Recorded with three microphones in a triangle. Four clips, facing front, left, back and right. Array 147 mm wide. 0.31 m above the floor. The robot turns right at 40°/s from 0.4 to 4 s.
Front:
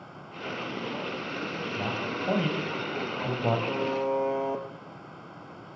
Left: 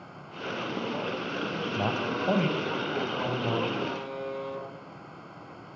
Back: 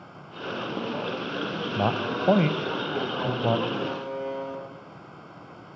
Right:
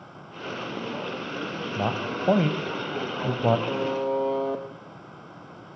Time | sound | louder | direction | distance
1.8 | a man speaking | right 2 dB, back 8 dB | 170° right | 1.9 m
3.7 | a buzzer | right 7 dB, front 3 dB | 65° right | 2.5 m